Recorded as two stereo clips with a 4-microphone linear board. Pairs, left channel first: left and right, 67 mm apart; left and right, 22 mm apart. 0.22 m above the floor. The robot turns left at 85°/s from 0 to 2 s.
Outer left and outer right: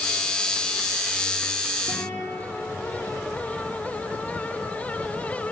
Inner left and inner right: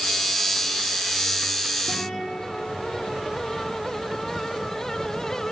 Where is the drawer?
No drawer in this recording.